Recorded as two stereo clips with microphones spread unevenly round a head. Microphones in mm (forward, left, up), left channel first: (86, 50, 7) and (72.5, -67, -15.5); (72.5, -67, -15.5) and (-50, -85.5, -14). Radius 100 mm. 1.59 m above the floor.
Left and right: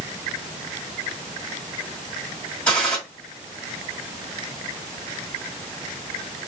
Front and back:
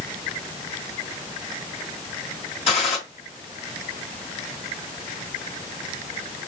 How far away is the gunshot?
About 1.6 m.